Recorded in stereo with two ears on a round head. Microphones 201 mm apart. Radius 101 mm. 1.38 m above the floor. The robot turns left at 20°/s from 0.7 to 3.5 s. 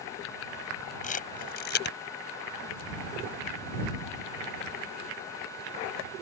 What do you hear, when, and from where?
1.0 s a camera shutter: 35° left (ahead or behind); by 2.0 s 55° left (ahead or behind)